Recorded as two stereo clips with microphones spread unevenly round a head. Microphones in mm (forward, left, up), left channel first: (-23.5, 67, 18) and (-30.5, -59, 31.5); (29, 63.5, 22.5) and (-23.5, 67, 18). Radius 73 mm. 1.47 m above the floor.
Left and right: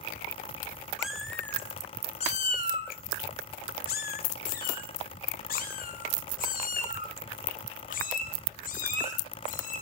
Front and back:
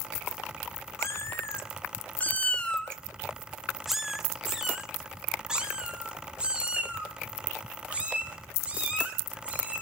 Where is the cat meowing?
10° right, 1.3 m; by 9.8 s 110° left, 5.5 m.